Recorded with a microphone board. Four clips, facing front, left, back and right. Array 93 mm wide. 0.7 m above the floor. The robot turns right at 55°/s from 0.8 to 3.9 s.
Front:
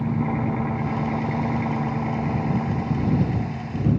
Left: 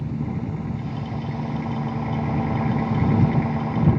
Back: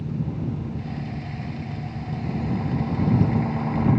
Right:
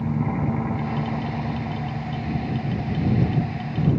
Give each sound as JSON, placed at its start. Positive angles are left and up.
{"t": 0.0, "sound": "an engine running", "azimuth_deg": -30}